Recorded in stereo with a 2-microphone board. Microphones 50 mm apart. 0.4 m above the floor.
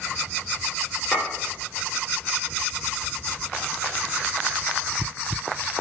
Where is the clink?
40° left (ahead or behind), 4 m.